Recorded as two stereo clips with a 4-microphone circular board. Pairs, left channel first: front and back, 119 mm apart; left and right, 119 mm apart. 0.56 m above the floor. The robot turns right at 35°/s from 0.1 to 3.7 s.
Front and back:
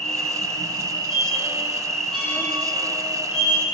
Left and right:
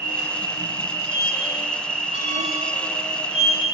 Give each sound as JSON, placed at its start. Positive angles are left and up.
{"t": 0.0, "sound": "an insect", "azimuth_deg": -160, "distance_m": 1.5}
{"t": 1.1, "sound": "a squeak", "azimuth_deg": -165, "distance_m": 6.5}